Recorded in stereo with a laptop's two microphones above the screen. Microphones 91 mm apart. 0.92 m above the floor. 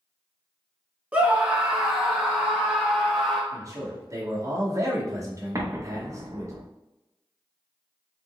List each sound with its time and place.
1.1 s a scream: 15° right (ahead or behind), 0.9 m; by 3.4 s 15° left (ahead or behind), 1.1 m
3.5 s a man speaking: 35° right (ahead or behind), 1.1 m
5.5 s an explosion: 35° right (ahead or behind), 0.6 m